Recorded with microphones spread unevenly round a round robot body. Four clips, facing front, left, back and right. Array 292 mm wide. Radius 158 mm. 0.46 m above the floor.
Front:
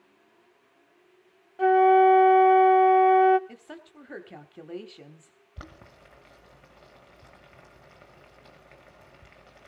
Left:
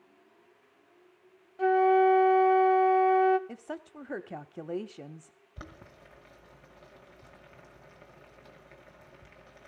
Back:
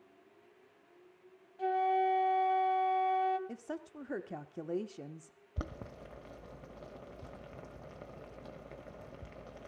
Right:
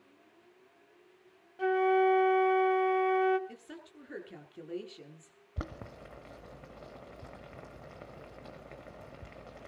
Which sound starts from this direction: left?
A woman speaking, at 3.5 s.